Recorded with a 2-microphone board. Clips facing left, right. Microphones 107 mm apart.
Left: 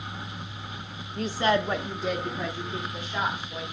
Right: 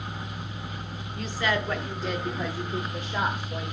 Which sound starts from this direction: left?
A woman speaking, at 1.2 s.